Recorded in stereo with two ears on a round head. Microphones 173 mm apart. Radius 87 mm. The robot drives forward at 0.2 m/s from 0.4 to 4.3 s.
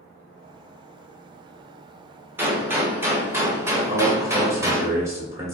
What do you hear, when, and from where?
2.4 s a gunshot: 10° right (ahead or behind), 0.9 m; by 4.9 s 15° right (ahead or behind), 0.7 m
3.9 s a man speaking: 15° right (ahead or behind), 1.5 m